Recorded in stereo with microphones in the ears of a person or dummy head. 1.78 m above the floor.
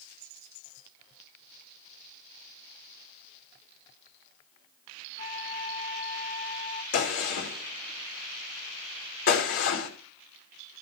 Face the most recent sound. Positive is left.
turn(degrees=65)  # may be behind; listen again after turning